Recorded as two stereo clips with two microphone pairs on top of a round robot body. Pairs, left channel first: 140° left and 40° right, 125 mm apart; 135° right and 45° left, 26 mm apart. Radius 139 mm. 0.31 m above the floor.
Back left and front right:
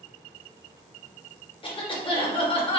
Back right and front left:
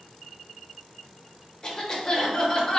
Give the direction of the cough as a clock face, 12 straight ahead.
6 o'clock.